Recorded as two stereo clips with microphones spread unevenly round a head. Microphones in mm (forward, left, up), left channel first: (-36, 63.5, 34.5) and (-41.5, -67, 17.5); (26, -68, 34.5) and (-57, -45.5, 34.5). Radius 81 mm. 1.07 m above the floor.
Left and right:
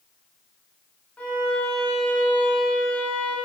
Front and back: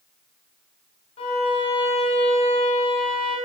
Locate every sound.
1.2 s a violin: 5° left, 0.8 m